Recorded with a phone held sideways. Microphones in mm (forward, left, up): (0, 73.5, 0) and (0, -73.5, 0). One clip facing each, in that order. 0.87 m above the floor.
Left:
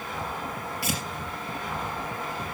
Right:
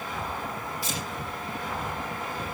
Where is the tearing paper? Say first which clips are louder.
Left 6 dB; 70° left (ahead or behind), 3.5 m.